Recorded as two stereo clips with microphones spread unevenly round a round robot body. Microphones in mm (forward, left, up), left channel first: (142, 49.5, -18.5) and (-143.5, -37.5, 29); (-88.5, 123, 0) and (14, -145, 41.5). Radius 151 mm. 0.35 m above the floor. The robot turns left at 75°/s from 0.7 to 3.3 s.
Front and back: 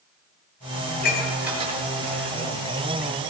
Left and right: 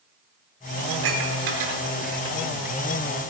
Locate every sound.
0.9 s dishes clattering: 35° right, 4.5 m; by 2.4 s 145° right, 4.5 m